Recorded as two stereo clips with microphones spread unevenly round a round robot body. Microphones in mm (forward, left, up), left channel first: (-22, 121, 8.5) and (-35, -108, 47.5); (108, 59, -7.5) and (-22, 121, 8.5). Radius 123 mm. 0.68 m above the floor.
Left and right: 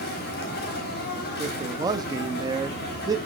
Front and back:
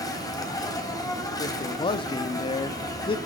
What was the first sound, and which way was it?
An insect, 40° left.